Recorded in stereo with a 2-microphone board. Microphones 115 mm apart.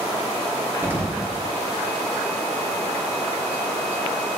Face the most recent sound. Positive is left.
turn(degrees=-20)  # may be behind; listen again after turning